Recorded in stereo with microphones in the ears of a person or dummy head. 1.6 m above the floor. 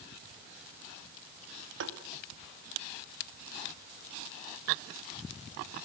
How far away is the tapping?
About 2 m.